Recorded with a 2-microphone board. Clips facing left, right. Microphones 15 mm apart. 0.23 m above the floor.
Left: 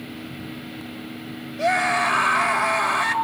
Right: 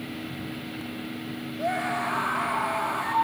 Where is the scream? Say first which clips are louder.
Left 8 dB; 70° left (ahead or behind), 4 m.